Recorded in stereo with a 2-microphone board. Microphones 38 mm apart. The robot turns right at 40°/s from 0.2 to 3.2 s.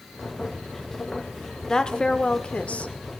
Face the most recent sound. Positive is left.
turn(degrees=85)